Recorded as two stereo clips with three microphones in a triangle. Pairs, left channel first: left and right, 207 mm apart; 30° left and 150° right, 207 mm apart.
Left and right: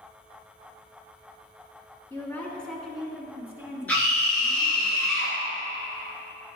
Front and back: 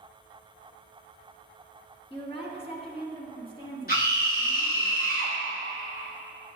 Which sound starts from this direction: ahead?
A scream, at 3.9 s.